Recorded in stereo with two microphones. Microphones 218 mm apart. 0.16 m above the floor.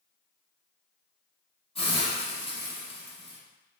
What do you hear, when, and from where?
1.8 s a hiss: 25° left (ahead or behind), 1.8 m